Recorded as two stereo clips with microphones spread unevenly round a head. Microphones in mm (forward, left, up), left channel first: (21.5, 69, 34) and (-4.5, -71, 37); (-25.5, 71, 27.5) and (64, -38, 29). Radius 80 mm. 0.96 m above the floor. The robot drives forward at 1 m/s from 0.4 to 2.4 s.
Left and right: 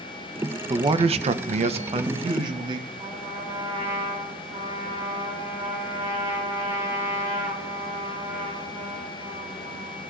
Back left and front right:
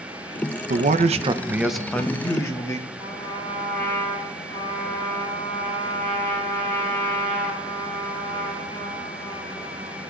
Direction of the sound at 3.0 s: 165° right.